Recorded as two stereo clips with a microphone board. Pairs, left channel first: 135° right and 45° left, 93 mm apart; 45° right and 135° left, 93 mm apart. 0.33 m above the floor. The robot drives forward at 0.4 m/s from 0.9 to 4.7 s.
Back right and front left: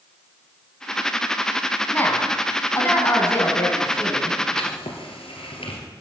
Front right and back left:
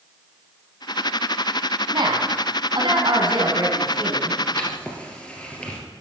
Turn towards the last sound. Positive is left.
turn(degrees=-125)